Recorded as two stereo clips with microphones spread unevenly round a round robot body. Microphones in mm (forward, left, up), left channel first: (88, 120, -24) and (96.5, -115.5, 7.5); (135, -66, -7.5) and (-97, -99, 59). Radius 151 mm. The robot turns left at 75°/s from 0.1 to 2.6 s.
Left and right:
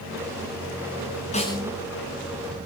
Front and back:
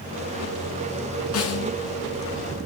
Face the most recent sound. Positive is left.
turn(degrees=-60)